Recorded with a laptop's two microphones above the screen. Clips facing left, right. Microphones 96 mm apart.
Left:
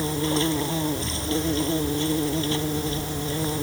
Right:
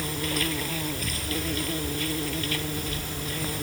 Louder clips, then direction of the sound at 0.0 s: Left 6 dB; 25° left (ahead or behind).